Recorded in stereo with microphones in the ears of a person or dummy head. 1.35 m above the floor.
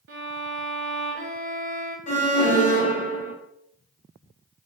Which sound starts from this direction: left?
An alarm, at 2.1 s.